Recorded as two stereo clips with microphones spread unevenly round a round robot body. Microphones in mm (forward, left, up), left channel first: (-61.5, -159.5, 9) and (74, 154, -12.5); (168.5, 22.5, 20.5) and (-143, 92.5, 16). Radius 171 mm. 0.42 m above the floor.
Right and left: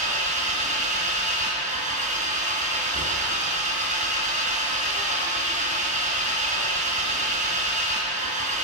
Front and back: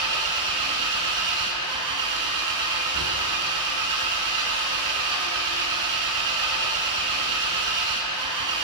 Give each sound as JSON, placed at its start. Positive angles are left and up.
{"t": 0.0, "sound": "an engine running", "azimuth_deg": 140, "distance_m": 4.0}